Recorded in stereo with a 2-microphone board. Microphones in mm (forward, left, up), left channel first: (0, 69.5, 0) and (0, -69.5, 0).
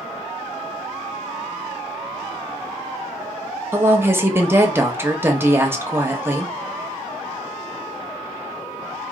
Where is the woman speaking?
15° right (ahead or behind), 0.7 m.